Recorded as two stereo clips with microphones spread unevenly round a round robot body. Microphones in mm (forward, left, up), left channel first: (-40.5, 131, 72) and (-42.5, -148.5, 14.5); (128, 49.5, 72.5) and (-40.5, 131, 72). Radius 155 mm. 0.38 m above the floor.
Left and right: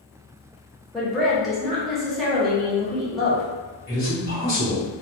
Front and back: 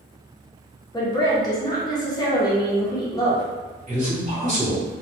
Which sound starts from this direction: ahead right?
A woman speaking, at 0.9 s.